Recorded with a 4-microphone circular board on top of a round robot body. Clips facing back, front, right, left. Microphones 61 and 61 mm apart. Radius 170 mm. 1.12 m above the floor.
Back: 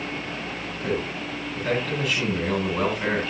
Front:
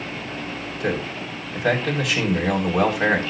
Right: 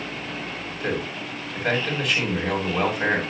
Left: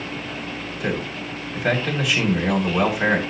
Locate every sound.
0.8 s a man speaking: 5° left, 6.5 m